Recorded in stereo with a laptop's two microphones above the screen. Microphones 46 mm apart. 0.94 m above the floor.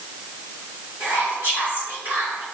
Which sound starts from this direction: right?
Whispering, at 1.0 s.